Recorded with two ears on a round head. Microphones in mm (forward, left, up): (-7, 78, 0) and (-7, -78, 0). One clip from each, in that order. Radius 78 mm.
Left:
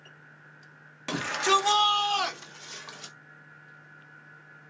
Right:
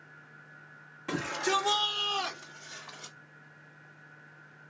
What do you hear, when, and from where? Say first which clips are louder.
1.1 s a shout: left 5 dB; 70° left (ahead or behind), 1.6 m; by 3.1 s 35° left (ahead or behind), 1.5 m